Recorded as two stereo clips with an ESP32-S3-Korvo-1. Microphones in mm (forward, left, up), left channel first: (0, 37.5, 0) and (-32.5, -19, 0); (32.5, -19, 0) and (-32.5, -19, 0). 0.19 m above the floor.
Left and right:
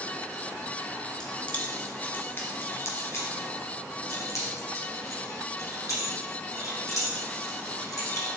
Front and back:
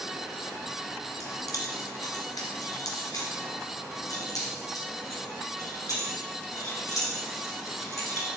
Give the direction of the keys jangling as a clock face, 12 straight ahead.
1 o'clock.